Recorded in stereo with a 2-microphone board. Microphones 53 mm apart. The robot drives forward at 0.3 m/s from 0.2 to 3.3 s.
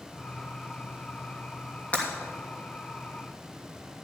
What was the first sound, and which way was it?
Breaking glass, 25° left (ahead or behind).